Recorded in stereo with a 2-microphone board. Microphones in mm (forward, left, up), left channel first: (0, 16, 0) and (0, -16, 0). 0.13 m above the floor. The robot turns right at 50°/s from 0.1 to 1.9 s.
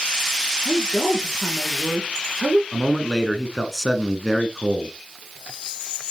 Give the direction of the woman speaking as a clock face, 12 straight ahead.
8 o'clock.